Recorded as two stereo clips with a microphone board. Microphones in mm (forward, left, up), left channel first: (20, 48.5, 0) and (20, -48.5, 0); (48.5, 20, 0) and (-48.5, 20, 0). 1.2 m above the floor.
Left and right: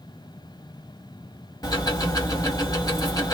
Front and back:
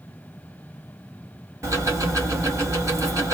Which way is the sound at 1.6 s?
130° left.